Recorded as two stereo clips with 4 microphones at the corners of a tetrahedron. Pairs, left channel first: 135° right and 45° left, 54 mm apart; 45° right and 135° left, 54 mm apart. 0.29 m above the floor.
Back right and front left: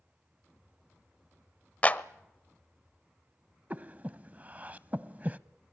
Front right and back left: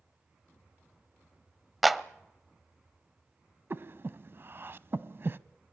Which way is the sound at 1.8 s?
135° right.